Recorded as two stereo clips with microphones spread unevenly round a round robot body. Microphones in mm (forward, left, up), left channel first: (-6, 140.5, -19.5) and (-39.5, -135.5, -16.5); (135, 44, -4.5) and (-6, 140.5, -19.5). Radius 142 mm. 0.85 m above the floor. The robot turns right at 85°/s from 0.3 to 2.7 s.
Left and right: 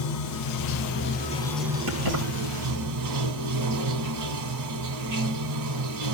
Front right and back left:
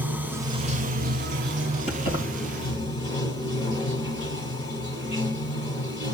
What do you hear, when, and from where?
0.0 s running water: 65° left, 1.4 m; by 6.2 s 95° right, 1.4 m
1.9 s keys jangling: 100° right, 4 m; by 2.2 s 70° right, 4 m